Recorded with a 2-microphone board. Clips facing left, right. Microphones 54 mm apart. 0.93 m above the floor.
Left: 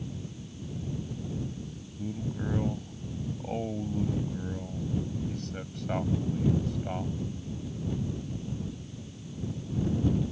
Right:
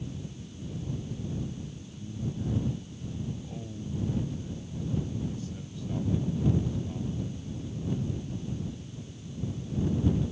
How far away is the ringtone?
No ringtone in this recording.